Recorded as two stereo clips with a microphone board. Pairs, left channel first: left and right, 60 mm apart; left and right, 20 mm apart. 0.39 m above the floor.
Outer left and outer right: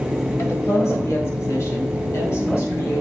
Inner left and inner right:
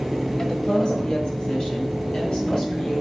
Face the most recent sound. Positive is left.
turn(degrees=50)  # may be behind; listen again after turning